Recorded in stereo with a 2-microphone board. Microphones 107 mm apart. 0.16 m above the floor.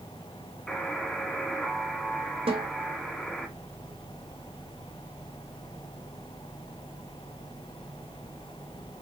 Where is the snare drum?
65° right (ahead or behind), 4 m.